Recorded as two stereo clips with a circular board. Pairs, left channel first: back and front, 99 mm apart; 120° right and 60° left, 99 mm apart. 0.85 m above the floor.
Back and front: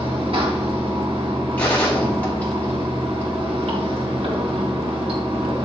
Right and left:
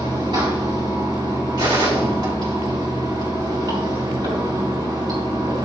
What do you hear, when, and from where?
0.0 s running water: 20° left, 4.5 m
1.6 s a gunshot: 105° left, 3.5 m